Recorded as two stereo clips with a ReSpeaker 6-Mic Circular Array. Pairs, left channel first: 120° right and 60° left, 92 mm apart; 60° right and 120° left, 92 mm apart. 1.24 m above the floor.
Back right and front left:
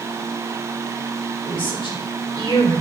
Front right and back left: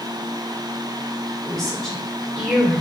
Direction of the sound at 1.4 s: 145° right.